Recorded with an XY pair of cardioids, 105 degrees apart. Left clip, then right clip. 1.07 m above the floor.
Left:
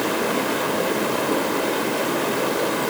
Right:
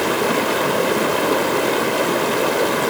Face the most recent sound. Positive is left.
turn(degrees=-40)